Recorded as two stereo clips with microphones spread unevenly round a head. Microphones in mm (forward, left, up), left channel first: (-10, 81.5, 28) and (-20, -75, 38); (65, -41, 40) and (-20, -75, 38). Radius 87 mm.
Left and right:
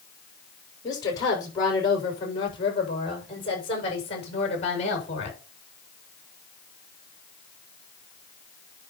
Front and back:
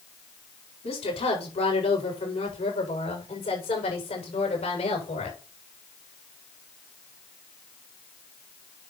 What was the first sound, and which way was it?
A woman speaking, 15° left.